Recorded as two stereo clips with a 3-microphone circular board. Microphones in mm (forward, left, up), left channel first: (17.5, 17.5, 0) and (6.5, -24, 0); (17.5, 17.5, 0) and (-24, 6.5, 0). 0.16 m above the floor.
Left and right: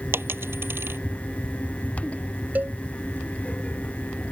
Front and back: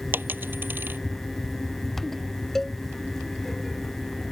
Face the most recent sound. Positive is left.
turn(degrees=-70)